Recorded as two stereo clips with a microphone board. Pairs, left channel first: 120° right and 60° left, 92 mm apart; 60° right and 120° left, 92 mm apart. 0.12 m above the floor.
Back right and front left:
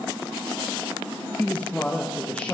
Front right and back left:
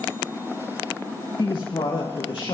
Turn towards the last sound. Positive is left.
turn(degrees=-45)